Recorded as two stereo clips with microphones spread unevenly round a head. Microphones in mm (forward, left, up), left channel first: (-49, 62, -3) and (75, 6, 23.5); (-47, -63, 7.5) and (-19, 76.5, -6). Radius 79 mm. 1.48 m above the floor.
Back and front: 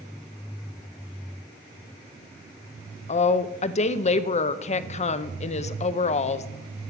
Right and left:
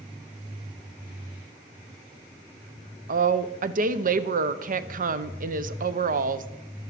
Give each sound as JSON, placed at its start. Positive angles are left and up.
{"t": 3.1, "sound": "a woman speaking", "azimuth_deg": 110, "distance_m": 0.7}